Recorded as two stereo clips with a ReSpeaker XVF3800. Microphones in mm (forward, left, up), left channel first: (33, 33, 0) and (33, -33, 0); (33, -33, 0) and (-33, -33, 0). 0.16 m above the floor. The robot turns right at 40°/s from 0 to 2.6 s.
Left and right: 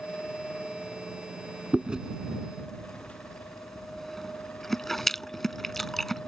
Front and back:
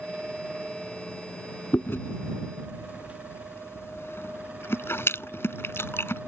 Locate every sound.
1.7 s chewing: 30° right; by 6.3 s 5° left